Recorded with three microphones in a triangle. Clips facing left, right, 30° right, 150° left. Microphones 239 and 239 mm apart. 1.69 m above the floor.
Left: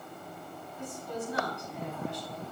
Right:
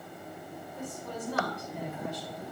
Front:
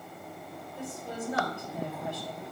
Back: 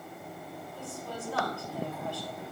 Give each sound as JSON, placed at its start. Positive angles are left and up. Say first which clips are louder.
{"t": 0.8, "sound": "a woman speaking", "louder": "left 2 dB, front 4 dB", "azimuth_deg": -100, "distance_m": 7.5}